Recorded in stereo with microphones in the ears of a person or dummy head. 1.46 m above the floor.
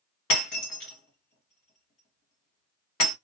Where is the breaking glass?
40° left (ahead or behind), 1.1 m.